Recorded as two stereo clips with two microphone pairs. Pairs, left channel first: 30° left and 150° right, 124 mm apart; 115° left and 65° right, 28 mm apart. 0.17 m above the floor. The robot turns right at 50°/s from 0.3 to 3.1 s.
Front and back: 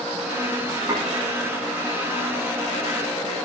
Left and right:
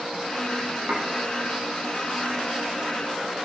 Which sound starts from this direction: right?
Dishes clattering, at 0.9 s.